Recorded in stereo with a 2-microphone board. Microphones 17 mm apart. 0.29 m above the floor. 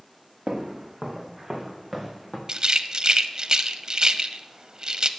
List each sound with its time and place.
0.5 s footsteps: 25° right (ahead or behind), 2.5 m; by 2.4 s 10° left (ahead or behind), 4.5 m
2.5 s a rattle: 40° right (ahead or behind), 0.8 m